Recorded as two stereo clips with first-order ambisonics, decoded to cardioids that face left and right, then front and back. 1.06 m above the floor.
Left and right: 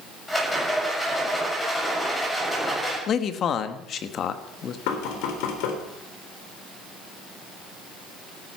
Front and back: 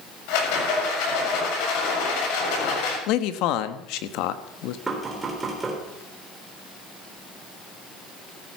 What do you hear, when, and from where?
0.3 s a rattle: 5° left, 7 m
3.1 s a man speaking: 30° left, 1.2 m
4.9 s knocking: 100° left, 3.5 m